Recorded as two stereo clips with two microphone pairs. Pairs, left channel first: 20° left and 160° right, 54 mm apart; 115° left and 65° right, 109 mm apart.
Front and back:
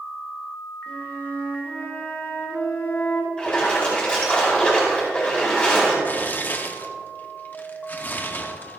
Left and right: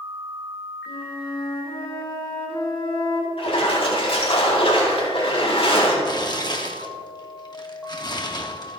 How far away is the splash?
About 5 m.